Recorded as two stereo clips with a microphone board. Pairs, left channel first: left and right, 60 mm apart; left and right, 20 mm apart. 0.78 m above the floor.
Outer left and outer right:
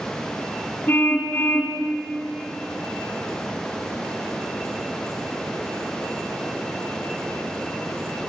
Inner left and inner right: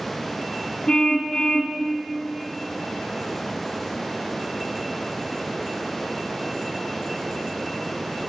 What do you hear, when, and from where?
0.9 s a car horn: 40° left (ahead or behind), 3 m